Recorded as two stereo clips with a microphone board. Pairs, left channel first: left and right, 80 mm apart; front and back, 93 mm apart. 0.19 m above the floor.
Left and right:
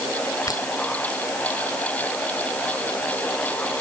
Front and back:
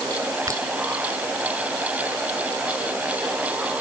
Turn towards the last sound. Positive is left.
turn(degrees=130)